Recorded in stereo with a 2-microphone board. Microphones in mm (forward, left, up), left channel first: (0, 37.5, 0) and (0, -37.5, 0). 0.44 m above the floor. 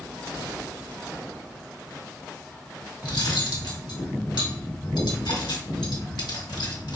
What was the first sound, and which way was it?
Cutlery clinking, 70° left (ahead or behind).